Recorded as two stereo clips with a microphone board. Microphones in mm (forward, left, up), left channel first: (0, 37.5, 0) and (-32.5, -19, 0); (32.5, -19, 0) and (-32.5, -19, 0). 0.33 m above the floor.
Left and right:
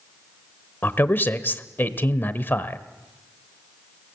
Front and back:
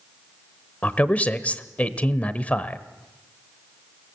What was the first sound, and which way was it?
A man speaking, 45° left.